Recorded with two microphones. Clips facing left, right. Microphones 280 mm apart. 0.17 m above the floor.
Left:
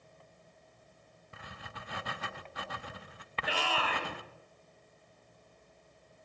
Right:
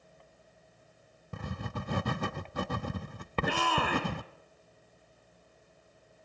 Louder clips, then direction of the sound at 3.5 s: Right 4 dB; 55° right (ahead or behind).